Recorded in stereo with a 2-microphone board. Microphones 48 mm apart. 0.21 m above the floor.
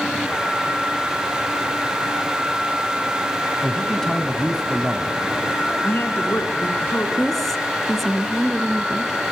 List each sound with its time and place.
3.6 s a man speaking: 10° left (ahead or behind), 1.6 m
5.8 s a woman speaking: 60° left (ahead or behind), 2.5 m
7.2 s a woman speaking: 5° left (ahead or behind), 1.9 m